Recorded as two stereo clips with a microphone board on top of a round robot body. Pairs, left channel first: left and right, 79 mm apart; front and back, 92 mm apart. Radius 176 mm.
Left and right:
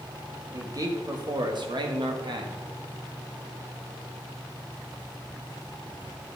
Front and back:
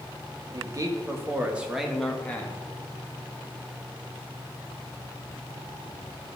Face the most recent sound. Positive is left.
turn(degrees=-70)